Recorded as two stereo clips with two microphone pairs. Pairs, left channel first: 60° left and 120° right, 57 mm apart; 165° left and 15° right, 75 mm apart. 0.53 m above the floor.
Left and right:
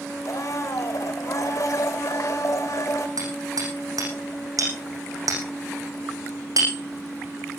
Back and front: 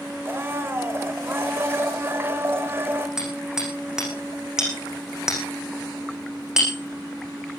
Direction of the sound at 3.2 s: 100° right.